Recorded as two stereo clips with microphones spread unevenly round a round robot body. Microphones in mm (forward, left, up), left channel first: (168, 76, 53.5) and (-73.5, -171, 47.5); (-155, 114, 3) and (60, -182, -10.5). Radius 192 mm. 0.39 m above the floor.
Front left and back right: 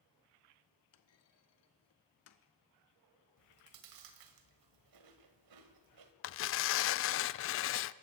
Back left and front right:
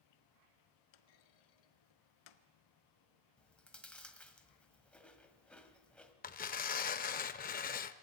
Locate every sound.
0.9 s a clunk: 100° left, 1.2 m
3.4 s chewing: 145° right, 1.9 m
6.2 s tearing paper: 70° left, 0.6 m